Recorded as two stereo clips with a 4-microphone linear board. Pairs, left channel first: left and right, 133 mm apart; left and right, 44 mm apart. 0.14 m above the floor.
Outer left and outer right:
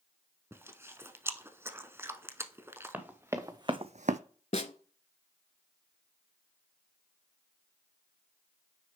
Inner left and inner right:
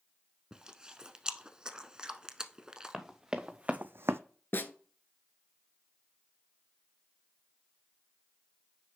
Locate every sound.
0.5 s chewing: 20° right (ahead or behind), 0.6 m
2.9 s running footsteps: 15° right (ahead or behind), 1.7 m; by 4.2 s 70° right (ahead or behind), 0.5 m
4.5 s a snare drum: 60° left (ahead or behind), 0.7 m